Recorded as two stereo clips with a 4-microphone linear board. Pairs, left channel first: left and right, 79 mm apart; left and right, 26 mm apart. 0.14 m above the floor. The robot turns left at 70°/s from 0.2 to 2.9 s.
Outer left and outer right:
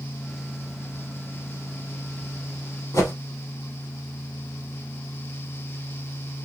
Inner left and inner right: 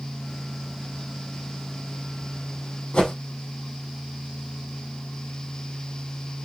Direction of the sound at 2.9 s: 35° left (ahead or behind).